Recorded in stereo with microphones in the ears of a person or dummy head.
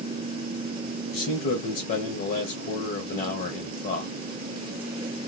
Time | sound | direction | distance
1.1 | a man speaking | 45° left (ahead or behind) | 0.9 m